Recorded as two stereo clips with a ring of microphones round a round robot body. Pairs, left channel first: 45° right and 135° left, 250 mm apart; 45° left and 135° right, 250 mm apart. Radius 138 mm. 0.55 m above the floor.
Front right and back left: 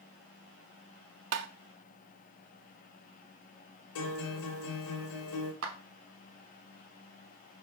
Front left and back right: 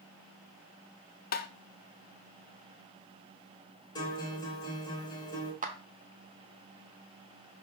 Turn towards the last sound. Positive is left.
turn(degrees=165)